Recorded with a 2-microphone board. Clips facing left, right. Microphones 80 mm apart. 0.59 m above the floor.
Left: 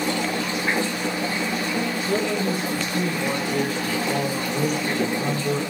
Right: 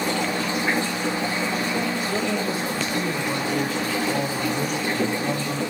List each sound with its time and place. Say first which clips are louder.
2.1 s a man speaking: left 1 dB; 55° left (ahead or behind), 7 m; by 5.6 s 35° left (ahead or behind), 7.5 m